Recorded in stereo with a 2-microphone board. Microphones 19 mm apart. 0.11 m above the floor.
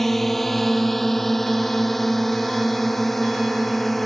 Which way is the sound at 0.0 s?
10° left (ahead or behind).